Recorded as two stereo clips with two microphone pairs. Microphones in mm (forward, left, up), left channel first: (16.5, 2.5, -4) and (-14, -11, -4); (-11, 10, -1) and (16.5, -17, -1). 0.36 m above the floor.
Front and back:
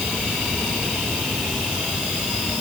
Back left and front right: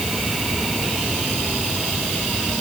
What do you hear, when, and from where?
Only background noise.